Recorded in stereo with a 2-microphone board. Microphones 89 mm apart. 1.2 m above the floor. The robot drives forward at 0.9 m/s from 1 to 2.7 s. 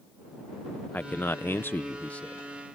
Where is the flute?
No flute in this recording.